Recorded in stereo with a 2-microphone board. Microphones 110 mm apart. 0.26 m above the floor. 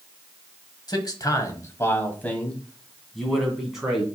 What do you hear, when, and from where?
0.9 s a man speaking: 40° left (ahead or behind), 1.3 m; by 4.0 s 5° right (ahead or behind), 2 m